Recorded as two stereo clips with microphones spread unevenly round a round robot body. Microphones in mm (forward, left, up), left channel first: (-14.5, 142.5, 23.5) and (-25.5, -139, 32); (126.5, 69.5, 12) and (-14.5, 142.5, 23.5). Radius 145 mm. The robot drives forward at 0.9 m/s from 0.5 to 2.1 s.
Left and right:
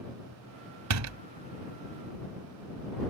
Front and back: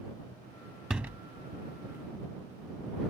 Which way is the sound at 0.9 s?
120° right.